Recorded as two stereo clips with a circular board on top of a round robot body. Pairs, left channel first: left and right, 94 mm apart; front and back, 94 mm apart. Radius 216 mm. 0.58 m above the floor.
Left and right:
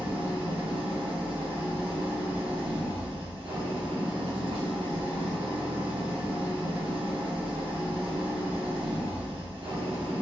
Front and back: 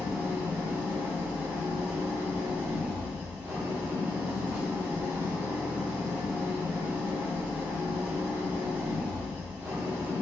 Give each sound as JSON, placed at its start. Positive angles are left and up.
{"t": 0.0, "sound": "an engine running", "azimuth_deg": -110, "distance_m": 1.4}